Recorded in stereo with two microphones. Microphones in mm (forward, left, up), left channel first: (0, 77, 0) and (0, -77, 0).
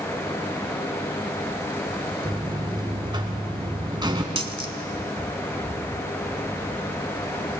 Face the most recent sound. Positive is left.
turn(degrees=-35)  # may be behind; listen again after turning